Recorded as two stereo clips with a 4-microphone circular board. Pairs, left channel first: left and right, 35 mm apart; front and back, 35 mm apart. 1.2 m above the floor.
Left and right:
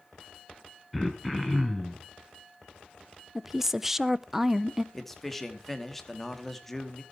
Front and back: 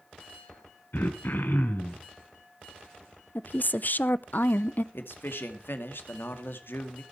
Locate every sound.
0.9 s throat clearing: 5° right, 2 m
3.4 s a woman speaking: 15° right, 0.6 m
4.9 s a man speaking: 5° left, 2 m